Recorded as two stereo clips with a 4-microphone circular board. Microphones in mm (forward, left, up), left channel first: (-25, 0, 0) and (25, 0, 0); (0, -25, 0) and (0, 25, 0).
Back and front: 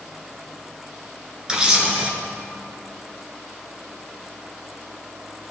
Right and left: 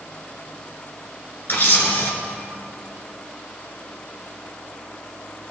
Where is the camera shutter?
65° right, 1.7 m.